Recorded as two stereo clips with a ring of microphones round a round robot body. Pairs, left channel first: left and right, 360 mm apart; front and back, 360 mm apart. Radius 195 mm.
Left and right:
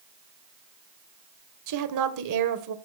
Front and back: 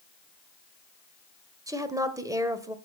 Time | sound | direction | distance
1.7 | a woman speaking | 100° right | 1.4 m